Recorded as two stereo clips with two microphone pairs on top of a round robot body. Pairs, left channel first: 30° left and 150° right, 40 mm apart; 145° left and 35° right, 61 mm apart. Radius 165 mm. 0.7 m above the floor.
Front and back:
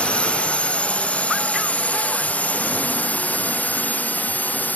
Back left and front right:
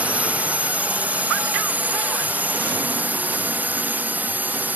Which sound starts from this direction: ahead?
A drone, at 0.0 s.